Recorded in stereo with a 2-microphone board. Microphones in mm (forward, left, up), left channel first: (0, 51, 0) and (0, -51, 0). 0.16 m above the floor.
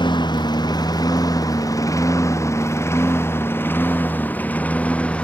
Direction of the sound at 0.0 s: 45° left (ahead or behind).